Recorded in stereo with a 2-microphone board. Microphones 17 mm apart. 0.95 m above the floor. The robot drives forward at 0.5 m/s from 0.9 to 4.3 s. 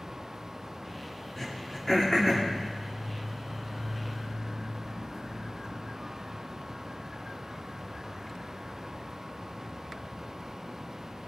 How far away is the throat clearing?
About 2.5 m.